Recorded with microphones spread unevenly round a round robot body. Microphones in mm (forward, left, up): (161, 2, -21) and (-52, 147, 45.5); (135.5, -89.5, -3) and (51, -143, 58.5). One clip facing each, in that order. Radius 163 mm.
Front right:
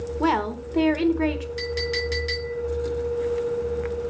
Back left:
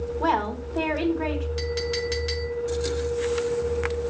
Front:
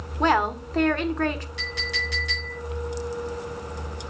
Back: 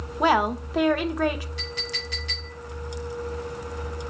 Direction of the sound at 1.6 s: 75° left.